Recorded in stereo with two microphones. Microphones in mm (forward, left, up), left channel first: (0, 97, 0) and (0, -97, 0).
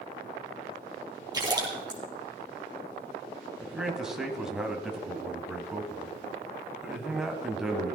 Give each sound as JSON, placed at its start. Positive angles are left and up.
{"t": 1.3, "sound": "a splash", "side_deg": -20, "distance_m": 3.5}
{"t": 3.6, "sound": "a man speaking", "side_deg": -5, "distance_m": 1.8}